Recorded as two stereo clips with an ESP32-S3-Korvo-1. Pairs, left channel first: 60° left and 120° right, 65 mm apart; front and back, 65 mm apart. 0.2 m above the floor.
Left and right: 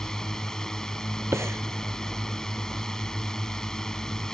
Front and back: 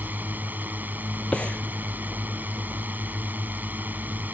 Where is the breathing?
75° right.